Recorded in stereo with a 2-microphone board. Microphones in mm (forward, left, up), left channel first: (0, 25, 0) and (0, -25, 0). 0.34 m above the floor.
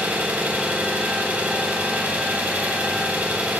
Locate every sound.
0.0 s an engine running: 30° right (ahead or behind), 0.9 m